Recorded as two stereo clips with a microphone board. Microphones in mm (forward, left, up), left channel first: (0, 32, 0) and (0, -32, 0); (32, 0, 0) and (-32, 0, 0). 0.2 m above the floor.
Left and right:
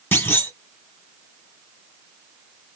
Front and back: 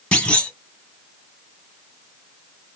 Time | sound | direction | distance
0.1 | a clunk | 60° left | 1.0 m